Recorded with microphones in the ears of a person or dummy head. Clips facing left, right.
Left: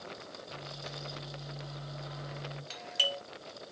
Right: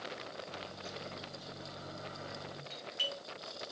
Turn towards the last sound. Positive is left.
turn(degrees=60)  # may be behind; listen again after turning